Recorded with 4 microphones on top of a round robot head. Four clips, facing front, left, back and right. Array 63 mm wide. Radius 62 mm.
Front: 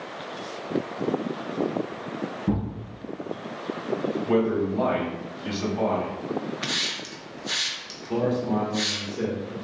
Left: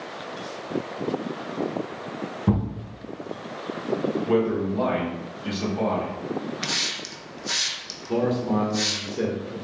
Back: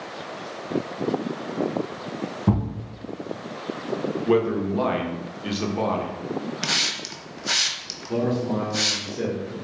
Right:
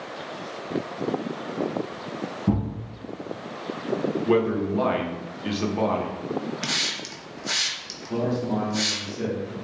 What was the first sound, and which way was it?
A thud, 145° left.